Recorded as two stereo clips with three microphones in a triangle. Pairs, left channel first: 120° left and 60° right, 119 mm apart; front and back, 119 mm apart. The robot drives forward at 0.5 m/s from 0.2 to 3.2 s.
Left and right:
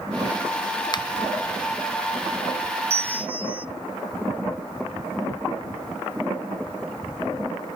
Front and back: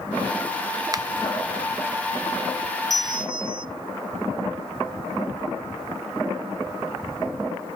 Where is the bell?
120° right, 0.5 m; by 3.6 s 135° right, 0.6 m.